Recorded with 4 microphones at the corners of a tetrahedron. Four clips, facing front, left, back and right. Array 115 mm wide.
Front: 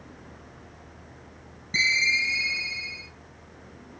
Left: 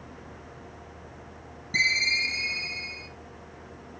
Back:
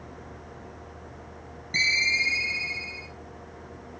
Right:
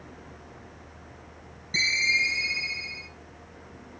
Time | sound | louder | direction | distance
1.7 | a ringtone | even, front 1 dB | 40° left | 4 m